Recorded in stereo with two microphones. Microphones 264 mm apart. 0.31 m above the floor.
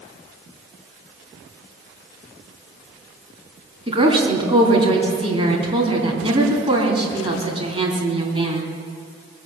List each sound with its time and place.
3.9 s a woman speaking: 20° right (ahead or behind), 3 m